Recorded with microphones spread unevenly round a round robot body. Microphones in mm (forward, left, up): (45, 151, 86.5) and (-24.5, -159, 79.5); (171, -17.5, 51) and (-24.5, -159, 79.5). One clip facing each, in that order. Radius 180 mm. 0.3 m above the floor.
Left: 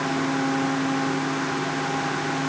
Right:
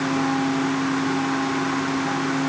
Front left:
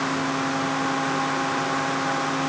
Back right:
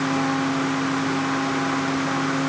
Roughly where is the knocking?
I don't hear knocking.